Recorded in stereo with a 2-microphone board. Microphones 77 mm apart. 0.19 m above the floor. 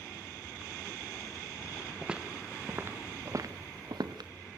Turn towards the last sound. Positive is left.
turn(degrees=-85)